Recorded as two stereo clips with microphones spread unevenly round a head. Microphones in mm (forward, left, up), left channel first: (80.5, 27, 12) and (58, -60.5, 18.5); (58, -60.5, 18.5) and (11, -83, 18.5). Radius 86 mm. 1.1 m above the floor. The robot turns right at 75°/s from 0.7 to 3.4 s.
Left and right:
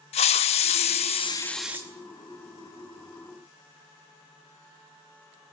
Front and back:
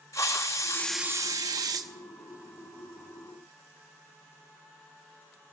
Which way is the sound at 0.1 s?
100° left.